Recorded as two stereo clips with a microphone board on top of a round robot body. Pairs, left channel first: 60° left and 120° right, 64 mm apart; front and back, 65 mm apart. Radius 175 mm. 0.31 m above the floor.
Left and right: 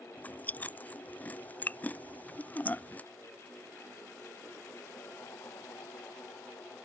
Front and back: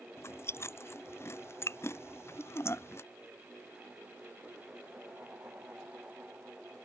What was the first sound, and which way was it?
Chewing, 10° left.